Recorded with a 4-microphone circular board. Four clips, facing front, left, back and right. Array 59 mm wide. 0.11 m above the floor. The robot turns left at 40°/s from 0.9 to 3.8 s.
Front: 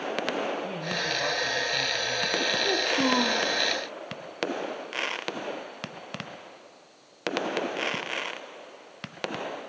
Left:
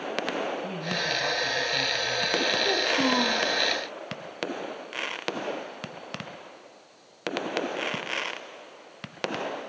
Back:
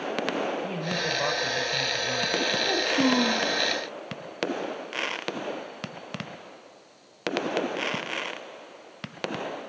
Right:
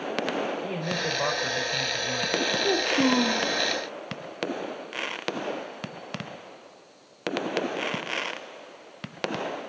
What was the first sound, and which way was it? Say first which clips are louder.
A man speaking: right 1 dB, back 1 dB; 75° right.